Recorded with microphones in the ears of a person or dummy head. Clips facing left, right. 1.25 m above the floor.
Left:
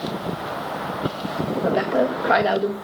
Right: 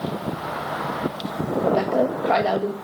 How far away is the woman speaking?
About 1.9 m.